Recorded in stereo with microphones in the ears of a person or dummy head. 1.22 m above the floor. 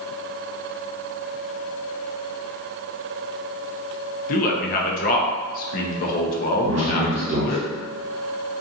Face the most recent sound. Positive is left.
turn(degrees=-65)  # may be behind; listen again after turning